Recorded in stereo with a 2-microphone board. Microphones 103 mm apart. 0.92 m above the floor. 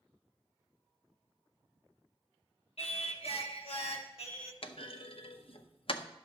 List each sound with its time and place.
2.8 s singing: 75° left (ahead or behind), 0.9 m
4.6 s a clunk: 60° left (ahead or behind), 0.6 m